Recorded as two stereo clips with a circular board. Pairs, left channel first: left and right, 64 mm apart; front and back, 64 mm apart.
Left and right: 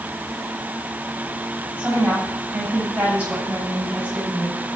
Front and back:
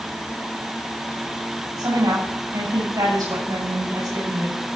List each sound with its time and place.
1.8 s a woman speaking: 160° right, 7.5 m